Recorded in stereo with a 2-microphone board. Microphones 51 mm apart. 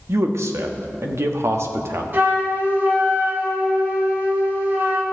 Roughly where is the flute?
Right.